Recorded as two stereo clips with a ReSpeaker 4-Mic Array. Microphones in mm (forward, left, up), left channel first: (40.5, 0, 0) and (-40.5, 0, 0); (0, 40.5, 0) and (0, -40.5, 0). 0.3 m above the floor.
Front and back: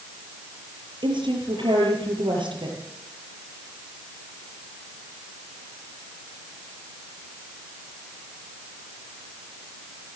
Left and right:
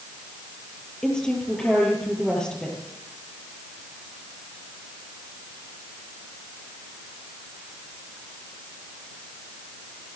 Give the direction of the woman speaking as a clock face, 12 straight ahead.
6 o'clock.